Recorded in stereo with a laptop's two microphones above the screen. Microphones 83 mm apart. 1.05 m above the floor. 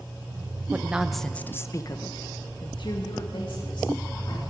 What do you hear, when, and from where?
0.7 s a woman speaking: 20° right (ahead or behind), 0.9 m; by 4.4 s 70° left (ahead or behind), 2.5 m